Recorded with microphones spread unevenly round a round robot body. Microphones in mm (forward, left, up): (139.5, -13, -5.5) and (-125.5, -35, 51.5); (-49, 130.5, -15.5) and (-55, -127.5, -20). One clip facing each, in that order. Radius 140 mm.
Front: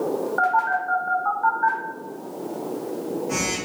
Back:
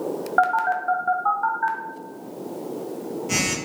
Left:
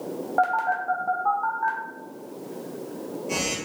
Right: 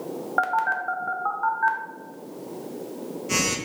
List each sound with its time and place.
0.4 s a phone buzzing: 160° right, 0.6 m